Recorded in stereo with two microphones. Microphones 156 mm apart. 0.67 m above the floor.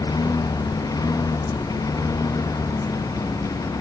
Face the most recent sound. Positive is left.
turn(degrees=20)  # may be behind; listen again after turning